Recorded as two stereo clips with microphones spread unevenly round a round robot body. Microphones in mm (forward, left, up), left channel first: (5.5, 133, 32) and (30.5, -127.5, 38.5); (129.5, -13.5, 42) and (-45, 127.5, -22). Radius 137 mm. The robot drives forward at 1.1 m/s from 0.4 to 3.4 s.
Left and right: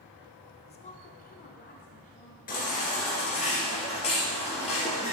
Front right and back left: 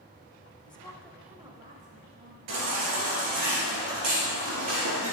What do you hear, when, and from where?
0.7 s a woman speaking: 40° left, 1.2 m; by 2.4 s 155° left, 1.6 m
2.5 s a baby crying: 155° left, 2.5 m; by 5.2 s 165° left, 3.5 m